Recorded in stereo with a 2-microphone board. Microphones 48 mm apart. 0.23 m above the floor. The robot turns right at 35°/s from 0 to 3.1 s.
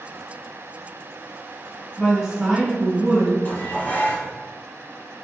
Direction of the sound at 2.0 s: 5° right (ahead or behind).